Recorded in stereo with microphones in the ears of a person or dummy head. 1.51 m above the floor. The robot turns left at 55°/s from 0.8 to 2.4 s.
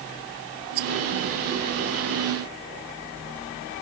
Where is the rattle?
50° right (ahead or behind); by 0.9 s 45° right (ahead or behind).